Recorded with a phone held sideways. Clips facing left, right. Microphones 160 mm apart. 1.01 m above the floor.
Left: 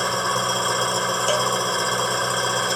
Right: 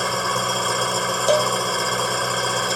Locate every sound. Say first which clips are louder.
0.0 s an engine running: even; centre (ahead or behind)
1.3 s a cowbell: right 6 dB; 30° right (ahead or behind)